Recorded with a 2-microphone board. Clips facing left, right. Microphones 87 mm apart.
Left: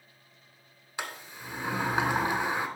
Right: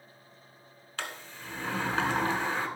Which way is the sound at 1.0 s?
15° left (ahead or behind).